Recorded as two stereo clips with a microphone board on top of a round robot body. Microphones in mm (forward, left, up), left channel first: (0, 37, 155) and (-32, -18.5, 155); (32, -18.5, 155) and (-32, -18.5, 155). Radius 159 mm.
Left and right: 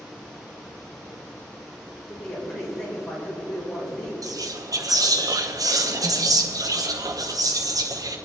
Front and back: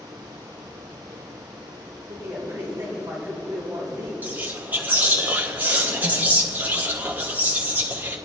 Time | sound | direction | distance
2.1 | a man speaking | 115° left | 4.5 m
4.2 | whispering | 120° right | 1.2 m